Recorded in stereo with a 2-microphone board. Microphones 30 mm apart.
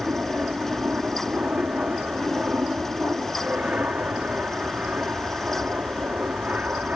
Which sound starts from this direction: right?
An aircraft, at 0.0 s.